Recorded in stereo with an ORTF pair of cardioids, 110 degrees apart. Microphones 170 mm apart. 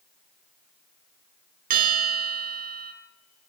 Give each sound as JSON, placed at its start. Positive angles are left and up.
{"t": 1.7, "sound": "a bell", "azimuth_deg": -60, "distance_m": 3.0}